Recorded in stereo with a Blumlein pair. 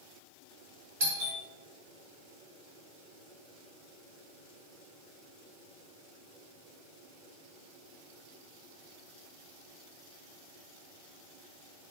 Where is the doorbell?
55° right, 1.8 m.